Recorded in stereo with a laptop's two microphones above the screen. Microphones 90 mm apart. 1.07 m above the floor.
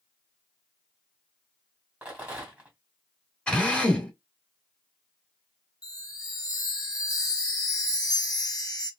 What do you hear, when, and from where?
2.0 s a rattle: 15° right (ahead or behind), 2 m
3.5 s a drill: 10° left (ahead or behind), 3 m
5.8 s a chime: 40° left (ahead or behind), 1.5 m